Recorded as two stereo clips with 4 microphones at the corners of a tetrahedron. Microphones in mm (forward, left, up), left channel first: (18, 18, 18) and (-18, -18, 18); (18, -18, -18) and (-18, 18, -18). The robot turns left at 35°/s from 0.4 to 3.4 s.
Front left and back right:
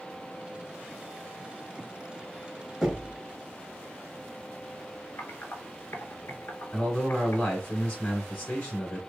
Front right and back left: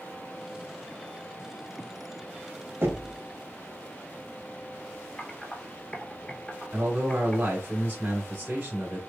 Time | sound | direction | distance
2.8 | knocking | 140° left | 1.4 m
5.2 | typing on a keyboard | 20° left | 0.8 m
6.7 | a man speaking | 100° left | 2.5 m